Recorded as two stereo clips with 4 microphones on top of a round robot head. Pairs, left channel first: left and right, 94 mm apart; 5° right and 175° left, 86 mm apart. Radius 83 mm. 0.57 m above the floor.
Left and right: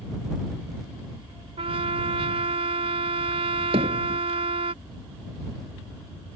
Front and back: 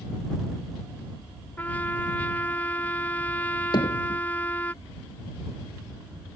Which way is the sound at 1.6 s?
75° right.